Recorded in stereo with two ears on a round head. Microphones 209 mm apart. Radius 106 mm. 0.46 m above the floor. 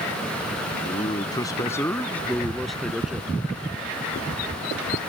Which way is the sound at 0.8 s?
25° left (ahead or behind).